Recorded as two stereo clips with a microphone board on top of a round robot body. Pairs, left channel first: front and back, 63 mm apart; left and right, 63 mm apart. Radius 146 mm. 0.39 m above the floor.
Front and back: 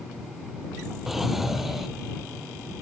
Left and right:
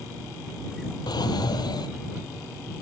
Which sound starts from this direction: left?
A drawer, at 1.1 s.